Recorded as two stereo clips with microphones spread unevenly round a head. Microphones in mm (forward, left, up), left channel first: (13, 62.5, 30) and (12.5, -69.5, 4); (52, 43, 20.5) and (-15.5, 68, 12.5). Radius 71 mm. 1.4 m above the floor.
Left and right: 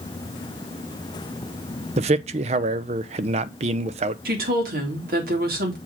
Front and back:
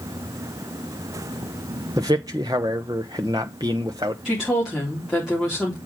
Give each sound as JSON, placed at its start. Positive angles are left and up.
{"t": 2.0, "sound": "a man speaking", "azimuth_deg": -135, "distance_m": 0.6}
{"t": 4.2, "sound": "a woman speaking", "azimuth_deg": -115, "distance_m": 3.0}